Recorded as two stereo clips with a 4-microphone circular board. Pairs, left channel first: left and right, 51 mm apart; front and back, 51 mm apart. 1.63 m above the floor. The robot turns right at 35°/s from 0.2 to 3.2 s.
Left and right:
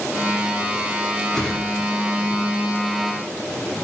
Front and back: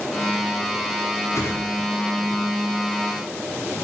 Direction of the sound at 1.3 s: 10° left.